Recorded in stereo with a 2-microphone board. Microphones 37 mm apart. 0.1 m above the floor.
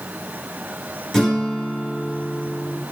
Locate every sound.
1.1 s a guitar: 5° left (ahead or behind), 1.6 m